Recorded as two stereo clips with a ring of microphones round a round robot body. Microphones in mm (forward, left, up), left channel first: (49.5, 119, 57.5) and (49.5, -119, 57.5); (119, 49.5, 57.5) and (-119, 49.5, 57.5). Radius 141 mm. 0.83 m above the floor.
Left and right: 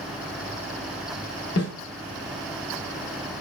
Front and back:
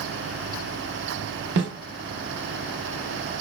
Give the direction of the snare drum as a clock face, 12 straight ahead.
7 o'clock.